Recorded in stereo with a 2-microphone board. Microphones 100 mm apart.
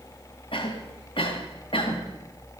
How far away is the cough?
About 2 m.